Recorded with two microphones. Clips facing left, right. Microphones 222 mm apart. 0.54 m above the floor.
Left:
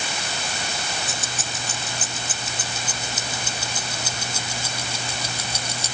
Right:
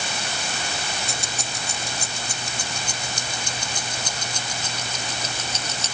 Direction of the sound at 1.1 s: 5° left (ahead or behind).